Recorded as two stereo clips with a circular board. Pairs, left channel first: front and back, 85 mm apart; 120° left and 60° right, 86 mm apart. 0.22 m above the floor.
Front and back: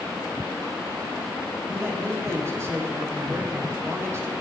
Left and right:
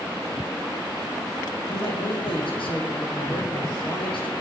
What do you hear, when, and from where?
1.7 s a man speaking: 120° left, 8.5 m